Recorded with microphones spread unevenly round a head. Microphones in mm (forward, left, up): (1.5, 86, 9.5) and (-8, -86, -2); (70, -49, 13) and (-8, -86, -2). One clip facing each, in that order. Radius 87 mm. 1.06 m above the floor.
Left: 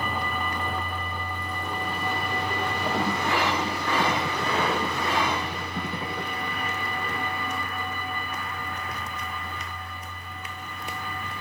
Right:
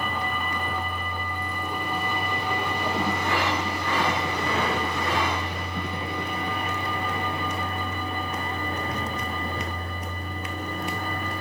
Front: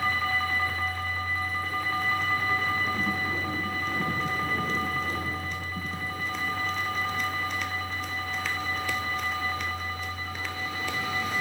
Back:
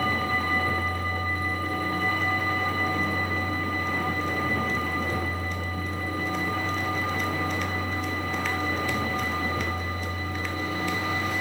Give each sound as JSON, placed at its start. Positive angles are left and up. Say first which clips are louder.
{"t": 0.0, "sound": "a vehicle", "louder": "even, back 1 dB", "azimuth_deg": 175}